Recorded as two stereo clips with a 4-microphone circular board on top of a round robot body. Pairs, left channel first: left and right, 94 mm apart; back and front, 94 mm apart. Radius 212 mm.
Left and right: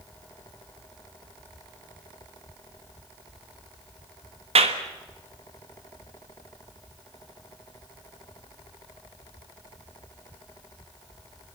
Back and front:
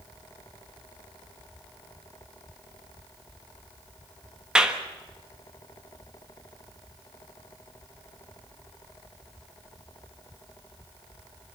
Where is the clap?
80° right, 1.4 m.